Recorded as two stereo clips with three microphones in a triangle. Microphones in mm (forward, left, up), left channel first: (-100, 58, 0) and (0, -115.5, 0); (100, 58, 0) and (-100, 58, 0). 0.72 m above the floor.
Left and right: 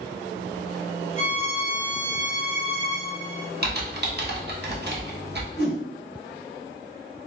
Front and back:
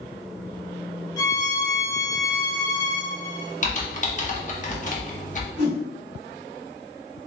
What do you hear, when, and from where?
1.2 s a violin: 70° right, 0.7 m
3.6 s typing on a keyboard: 45° right, 0.8 m
5.6 s a whoosh: 55° right, 2 m